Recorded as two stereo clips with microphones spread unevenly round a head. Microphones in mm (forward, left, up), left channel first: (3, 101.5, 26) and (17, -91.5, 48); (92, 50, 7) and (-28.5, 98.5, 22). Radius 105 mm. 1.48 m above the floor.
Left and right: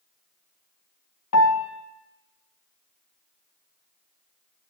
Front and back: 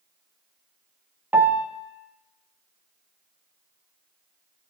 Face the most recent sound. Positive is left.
turn(degrees=85)